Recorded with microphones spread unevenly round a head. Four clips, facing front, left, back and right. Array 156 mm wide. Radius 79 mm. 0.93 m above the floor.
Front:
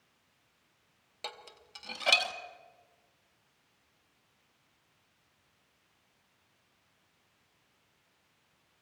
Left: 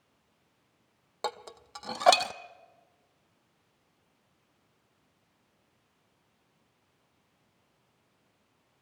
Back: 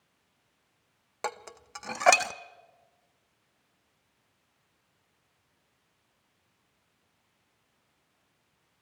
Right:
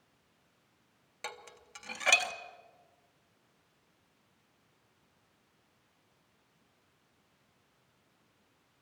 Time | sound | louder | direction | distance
1.2 | dishes clattering | left 10 dB, back 10 dB | 125° left | 0.7 m